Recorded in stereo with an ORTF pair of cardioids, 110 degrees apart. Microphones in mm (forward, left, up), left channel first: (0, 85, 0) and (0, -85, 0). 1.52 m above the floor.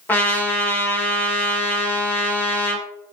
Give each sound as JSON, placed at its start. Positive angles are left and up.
{"t": 0.1, "sound": "a trumpet", "azimuth_deg": 10, "distance_m": 1.1}